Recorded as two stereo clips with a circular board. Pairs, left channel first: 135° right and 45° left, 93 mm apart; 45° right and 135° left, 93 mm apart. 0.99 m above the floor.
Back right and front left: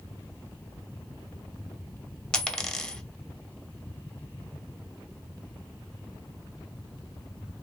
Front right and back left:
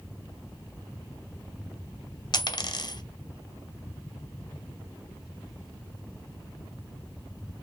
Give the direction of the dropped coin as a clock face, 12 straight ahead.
2 o'clock.